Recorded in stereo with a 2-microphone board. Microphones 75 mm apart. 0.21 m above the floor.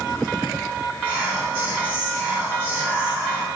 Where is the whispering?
20° right (ahead or behind), 1.0 m.